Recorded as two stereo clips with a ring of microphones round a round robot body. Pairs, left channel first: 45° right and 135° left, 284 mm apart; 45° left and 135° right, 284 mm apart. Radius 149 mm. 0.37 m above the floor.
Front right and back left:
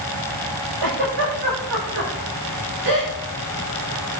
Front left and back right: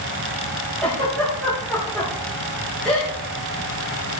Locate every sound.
0.8 s a giggle: 130° left, 7.5 m